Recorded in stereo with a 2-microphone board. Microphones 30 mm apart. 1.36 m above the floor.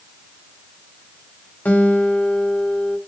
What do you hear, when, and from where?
1.6 s a guitar: 70° left (ahead or behind), 0.8 m